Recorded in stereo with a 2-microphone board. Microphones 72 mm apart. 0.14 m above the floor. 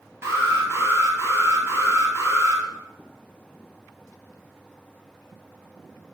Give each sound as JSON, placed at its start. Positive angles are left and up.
{"t": 0.2, "sound": "an alarm", "side_deg": -35, "distance_m": 2.5}